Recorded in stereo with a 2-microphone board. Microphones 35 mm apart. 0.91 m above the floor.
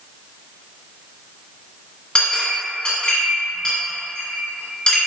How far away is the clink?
About 1.7 m.